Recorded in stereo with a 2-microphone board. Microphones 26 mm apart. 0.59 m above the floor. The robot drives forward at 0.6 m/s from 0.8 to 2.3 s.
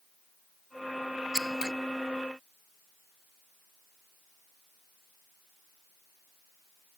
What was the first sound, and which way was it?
Scissors, 20° right (ahead or behind).